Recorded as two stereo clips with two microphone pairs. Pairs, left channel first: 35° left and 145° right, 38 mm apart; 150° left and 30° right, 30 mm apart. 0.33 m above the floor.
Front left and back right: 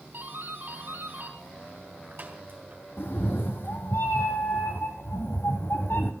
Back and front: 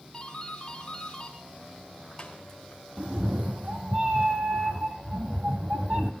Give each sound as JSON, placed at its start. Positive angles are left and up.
{"t": 0.1, "sound": "a doorbell", "azimuth_deg": -145, "distance_m": 4.0}
{"t": 3.0, "sound": "a cat meowing", "azimuth_deg": 10, "distance_m": 1.3}